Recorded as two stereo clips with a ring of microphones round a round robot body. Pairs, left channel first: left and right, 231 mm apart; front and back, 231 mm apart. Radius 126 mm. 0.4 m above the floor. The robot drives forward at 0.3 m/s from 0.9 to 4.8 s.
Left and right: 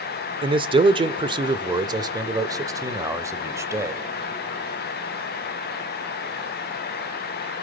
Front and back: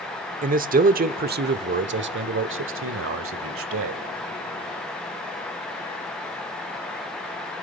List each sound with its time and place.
0.4 s a man speaking: 150° right, 0.9 m; by 4.0 s 165° right, 1.7 m